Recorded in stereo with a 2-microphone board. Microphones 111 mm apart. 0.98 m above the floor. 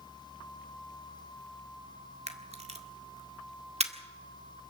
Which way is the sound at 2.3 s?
75° right (ahead or behind).